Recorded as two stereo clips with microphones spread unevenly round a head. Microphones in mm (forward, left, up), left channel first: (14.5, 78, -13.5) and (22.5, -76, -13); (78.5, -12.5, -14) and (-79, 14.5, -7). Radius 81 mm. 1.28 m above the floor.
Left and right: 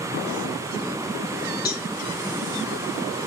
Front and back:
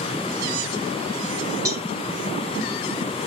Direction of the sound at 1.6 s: 105° left.